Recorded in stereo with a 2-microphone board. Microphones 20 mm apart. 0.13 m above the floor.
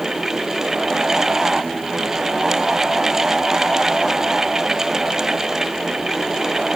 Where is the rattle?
No rattle in this recording.